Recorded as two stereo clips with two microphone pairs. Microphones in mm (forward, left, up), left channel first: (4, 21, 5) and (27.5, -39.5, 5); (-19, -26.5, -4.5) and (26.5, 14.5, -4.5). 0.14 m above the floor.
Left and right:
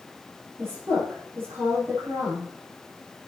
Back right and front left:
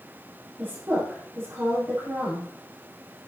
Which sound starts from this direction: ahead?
A woman speaking, at 0.6 s.